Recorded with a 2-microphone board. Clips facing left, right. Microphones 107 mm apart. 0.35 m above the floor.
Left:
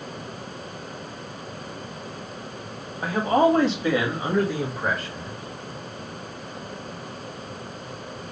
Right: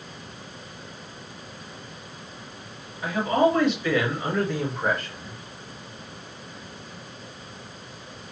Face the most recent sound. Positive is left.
turn(degrees=-5)  # may be behind; listen again after turning